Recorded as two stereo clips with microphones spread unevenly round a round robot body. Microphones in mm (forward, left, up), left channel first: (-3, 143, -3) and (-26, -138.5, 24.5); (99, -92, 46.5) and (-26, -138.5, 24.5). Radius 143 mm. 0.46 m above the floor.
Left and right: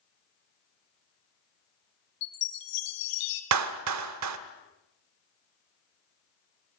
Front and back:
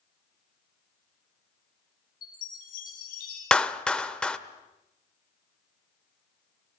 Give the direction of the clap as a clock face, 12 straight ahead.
2 o'clock.